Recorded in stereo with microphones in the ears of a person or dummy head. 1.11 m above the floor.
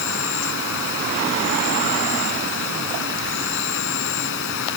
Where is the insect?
75° left (ahead or behind).